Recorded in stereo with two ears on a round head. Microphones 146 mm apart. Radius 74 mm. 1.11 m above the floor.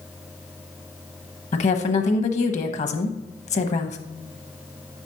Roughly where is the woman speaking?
Left.